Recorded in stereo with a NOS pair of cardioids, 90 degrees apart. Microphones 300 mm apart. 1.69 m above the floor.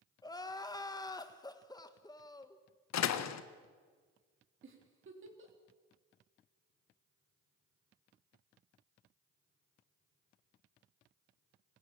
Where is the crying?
15° left, 1.8 m.